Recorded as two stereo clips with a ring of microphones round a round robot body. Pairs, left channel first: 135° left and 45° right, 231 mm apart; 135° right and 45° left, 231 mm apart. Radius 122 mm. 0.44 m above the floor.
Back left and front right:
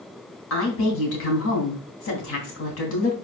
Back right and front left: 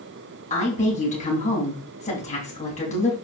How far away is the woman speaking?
About 3 m.